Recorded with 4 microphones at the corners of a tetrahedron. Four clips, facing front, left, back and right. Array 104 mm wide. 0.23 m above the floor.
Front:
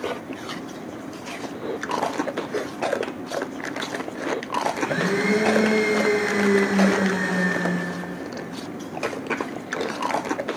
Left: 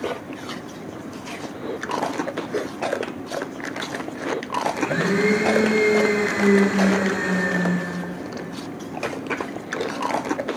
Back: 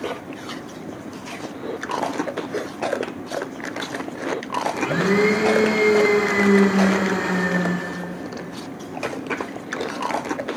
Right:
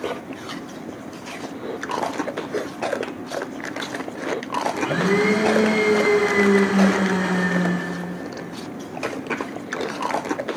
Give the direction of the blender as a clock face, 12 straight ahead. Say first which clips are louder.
Right 3 dB, back 3 dB; 5 o'clock.